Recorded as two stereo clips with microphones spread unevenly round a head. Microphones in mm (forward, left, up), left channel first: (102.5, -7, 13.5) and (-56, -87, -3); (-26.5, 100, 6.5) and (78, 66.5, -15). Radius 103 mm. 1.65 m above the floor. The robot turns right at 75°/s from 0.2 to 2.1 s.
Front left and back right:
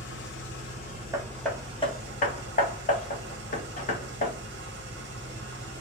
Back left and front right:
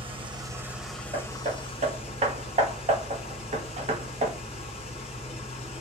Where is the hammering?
80° right, 1.1 m; by 4.3 s 5° right, 1.1 m.